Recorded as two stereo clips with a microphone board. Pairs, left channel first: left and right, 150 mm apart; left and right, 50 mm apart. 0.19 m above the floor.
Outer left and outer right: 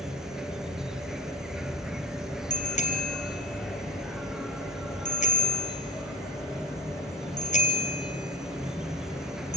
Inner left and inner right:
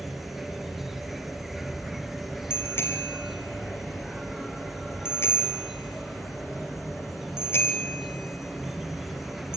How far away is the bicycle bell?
About 3 m.